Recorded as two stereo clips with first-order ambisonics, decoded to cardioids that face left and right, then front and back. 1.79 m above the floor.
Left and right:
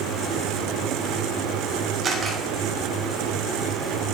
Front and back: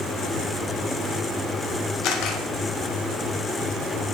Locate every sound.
2.0 s a camera shutter: 30° right, 1.1 m